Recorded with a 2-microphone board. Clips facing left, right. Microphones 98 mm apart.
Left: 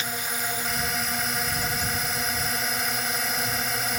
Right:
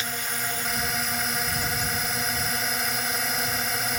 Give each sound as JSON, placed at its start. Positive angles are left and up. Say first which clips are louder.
{"t": 0.0, "sound": "a drone", "louder": "left 1 dB", "side_deg": 5}